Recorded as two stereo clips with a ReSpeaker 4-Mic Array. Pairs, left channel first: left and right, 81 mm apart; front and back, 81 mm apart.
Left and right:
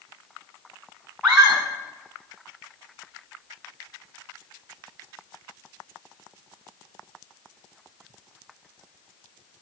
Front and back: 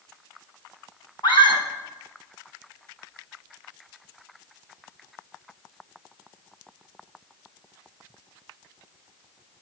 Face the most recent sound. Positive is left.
turn(degrees=-10)